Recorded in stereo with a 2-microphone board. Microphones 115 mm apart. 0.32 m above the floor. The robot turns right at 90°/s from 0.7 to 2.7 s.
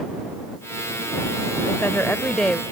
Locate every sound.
1.7 s a woman speaking: 20° left (ahead or behind); by 2.6 s centre (ahead or behind)